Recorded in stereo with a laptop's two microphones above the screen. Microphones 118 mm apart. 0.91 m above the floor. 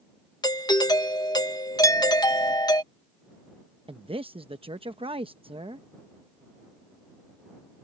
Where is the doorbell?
35° left (ahead or behind).